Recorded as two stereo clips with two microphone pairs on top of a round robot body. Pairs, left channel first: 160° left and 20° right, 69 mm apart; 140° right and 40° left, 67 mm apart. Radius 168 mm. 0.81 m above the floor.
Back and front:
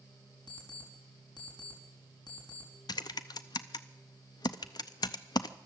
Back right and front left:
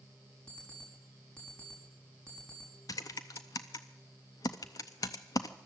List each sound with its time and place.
0.5 s an alarm clock: 145° left, 4.5 m
2.9 s typing on a keyboard: 175° right, 0.6 m